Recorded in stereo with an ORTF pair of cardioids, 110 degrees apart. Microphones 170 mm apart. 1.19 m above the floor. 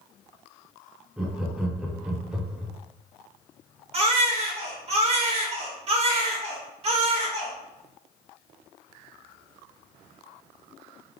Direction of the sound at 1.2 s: 5° right.